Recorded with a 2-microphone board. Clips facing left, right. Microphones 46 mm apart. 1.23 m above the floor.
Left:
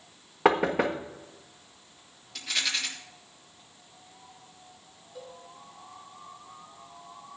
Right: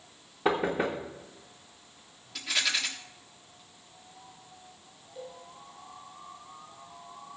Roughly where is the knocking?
Left.